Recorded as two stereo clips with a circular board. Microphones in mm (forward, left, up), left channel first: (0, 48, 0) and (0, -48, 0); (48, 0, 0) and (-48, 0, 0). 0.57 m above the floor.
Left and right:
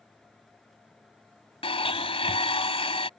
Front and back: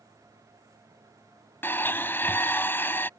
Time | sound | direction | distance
1.6 | a blender | 70° left | ?